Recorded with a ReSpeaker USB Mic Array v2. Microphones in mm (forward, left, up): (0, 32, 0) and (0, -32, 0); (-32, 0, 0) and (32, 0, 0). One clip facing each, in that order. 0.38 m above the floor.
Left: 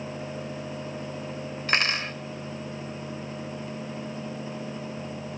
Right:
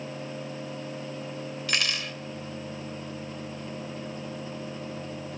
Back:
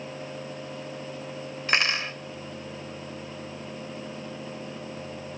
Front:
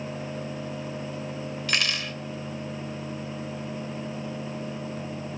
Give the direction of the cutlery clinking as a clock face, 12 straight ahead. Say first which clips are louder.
Left 5 dB, back 4 dB; 8 o'clock.